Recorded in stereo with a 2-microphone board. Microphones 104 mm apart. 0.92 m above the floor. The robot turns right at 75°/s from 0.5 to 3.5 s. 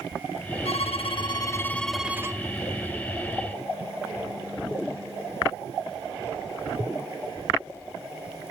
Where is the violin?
85° left, 0.5 m; by 2.4 s 145° right, 0.5 m.